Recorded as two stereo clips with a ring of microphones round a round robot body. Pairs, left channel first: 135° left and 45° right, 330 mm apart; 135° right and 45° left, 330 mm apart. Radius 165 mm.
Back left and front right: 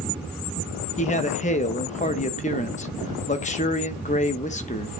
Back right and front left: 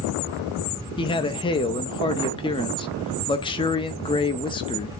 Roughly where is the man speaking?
Behind.